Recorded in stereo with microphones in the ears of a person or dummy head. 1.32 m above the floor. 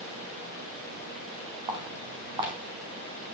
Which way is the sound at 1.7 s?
25° right (ahead or behind).